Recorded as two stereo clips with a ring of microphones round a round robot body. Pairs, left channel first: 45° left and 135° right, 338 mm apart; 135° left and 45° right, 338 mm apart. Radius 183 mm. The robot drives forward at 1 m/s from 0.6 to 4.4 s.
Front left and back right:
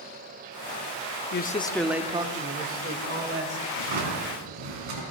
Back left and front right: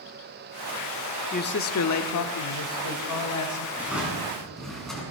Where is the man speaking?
80° left, 0.8 m; by 3.7 s 170° left, 2.5 m.